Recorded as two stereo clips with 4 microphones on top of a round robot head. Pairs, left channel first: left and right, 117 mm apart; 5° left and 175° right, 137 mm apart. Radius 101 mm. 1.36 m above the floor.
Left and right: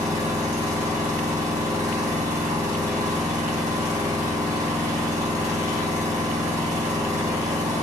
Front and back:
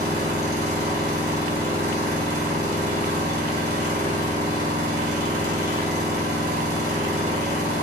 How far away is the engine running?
About 2.5 m.